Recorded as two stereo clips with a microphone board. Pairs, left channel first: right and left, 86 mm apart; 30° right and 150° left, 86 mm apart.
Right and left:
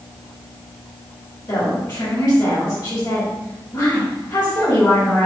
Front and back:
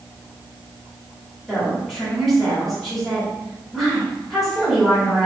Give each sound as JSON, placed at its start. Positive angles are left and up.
{"t": 1.5, "sound": "a woman speaking", "azimuth_deg": -120, "distance_m": 1.7}